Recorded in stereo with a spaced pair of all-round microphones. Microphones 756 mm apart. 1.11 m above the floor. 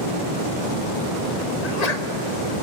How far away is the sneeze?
About 1.3 m.